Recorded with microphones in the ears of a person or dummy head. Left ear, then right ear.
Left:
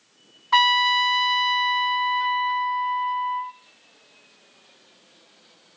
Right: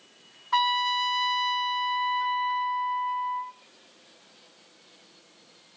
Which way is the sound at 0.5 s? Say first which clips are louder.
Left 6 dB; 30° left (ahead or behind).